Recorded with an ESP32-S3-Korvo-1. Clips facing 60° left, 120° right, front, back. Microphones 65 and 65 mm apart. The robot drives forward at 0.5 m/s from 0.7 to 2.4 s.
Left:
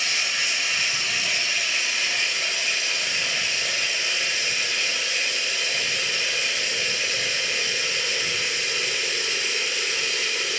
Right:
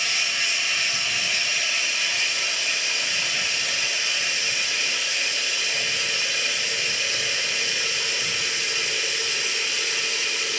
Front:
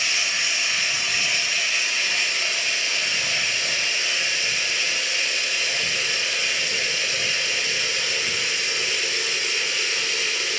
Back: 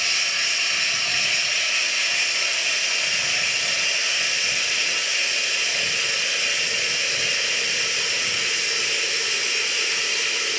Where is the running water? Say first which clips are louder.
Even, even; 70° left, 1.9 m; by 10.6 s 95° left, 1.8 m.